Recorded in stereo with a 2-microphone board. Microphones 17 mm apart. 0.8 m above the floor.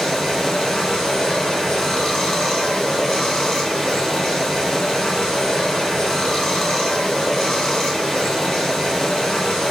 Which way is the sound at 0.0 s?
40° left (ahead or behind).